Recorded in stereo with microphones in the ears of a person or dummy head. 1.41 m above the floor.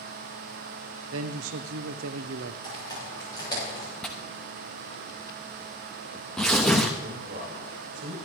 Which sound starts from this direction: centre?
Tearing paper, at 4.0 s.